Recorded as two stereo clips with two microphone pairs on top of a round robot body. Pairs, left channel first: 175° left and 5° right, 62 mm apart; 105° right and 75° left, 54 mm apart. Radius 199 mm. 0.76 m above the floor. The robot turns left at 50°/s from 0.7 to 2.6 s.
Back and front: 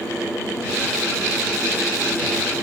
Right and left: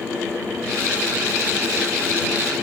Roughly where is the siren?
I don't hear a siren.